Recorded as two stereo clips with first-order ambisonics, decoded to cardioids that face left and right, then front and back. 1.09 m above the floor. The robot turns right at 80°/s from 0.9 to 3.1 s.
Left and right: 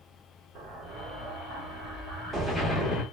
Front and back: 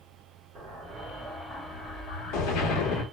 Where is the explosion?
130° right, 1.0 m; by 3.0 s 45° left, 1.0 m.